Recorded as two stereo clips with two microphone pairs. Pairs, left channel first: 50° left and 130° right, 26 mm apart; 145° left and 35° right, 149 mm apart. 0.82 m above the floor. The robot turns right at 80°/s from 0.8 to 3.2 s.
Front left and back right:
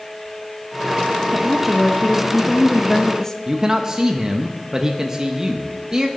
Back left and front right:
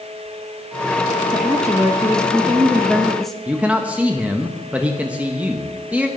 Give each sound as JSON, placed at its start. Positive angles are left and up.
{"t": 1.3, "sound": "a woman speaking", "azimuth_deg": -80, "distance_m": 0.7}
{"t": 3.5, "sound": "a man speaking", "azimuth_deg": -110, "distance_m": 0.8}